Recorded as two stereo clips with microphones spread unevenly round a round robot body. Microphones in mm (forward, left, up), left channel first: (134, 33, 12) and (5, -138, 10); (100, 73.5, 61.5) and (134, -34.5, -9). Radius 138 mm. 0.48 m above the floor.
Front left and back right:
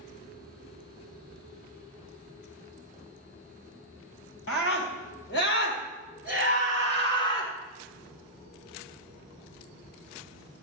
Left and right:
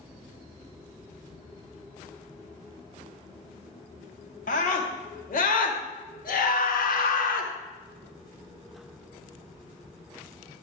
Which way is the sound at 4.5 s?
90° left.